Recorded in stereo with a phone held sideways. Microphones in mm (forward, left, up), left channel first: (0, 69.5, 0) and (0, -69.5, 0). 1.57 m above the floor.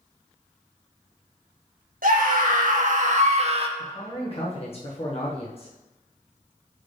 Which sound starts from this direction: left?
A man speaking, at 3.8 s.